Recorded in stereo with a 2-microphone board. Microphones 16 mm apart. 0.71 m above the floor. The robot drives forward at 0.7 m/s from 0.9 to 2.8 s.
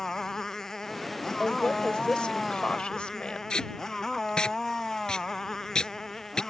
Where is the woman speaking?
75° left (ahead or behind).